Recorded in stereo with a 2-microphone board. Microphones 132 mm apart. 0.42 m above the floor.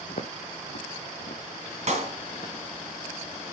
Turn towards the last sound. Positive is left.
turn(degrees=-55)  # may be behind; listen again after turning